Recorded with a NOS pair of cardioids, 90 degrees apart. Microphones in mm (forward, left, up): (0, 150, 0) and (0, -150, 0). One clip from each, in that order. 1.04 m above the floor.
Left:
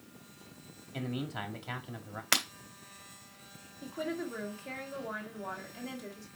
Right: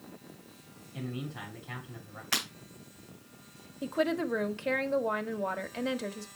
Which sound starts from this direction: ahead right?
A woman speaking, at 3.8 s.